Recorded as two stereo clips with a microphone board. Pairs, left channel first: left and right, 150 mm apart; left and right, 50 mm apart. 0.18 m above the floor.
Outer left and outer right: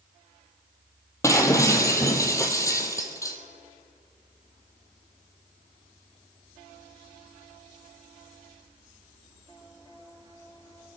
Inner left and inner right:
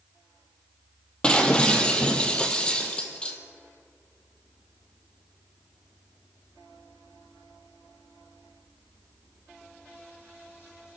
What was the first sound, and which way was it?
Breaking glass, 20° left (ahead or behind).